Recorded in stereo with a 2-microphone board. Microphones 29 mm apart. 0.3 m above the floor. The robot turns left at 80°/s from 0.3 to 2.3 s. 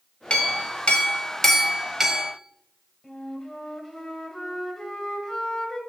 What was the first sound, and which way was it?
A clink, 115° left.